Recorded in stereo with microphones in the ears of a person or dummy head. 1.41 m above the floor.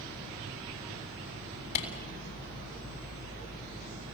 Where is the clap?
80° left, 7.5 m.